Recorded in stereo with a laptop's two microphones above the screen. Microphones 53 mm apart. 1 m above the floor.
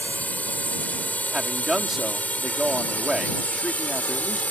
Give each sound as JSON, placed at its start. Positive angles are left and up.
{"t": 0.0, "sound": "a drone", "side_deg": 30}
{"t": 1.3, "sound": "a man speaking", "side_deg": -10}